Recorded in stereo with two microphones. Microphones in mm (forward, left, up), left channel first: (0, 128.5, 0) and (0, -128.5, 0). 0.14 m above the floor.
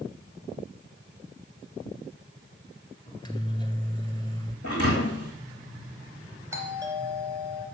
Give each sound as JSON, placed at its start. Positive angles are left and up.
{"t": 3.1, "sound": "a microwave", "side_deg": 20, "distance_m": 1.7}
{"t": 4.6, "sound": "a thud", "side_deg": 70, "distance_m": 3.0}
{"t": 6.5, "sound": "a doorbell", "side_deg": -10, "distance_m": 3.0}